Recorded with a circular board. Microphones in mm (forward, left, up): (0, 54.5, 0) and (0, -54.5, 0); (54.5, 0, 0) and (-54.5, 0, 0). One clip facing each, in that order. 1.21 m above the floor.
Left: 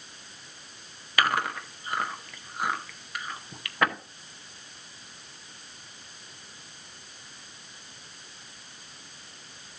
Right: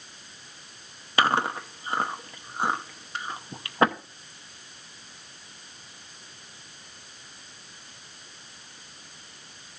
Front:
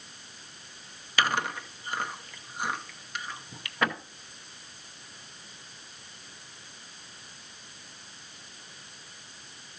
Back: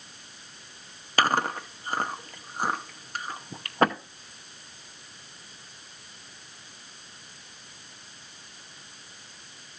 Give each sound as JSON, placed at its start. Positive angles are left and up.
{"t": 1.2, "sound": "chewing", "azimuth_deg": -145, "distance_m": 0.7}